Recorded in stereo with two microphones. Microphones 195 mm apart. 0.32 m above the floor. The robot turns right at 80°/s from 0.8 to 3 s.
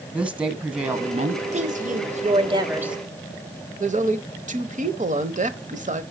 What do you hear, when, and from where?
0.1 s a woman speaking: 175° right, 2.5 m; by 1.4 s 125° right, 2.5 m
1.5 s a woman speaking: 120° right, 1.6 m; by 3.0 s 5° right, 1.6 m
3.8 s a woman speaking: 40° right (ahead or behind), 1.1 m